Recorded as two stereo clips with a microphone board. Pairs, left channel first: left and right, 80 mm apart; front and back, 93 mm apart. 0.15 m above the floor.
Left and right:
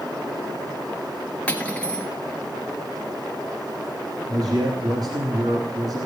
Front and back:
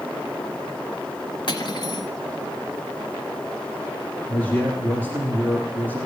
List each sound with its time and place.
1.5 s cutlery clinking: 20° left, 1.6 m
4.3 s a man speaking: 70° right, 2.5 m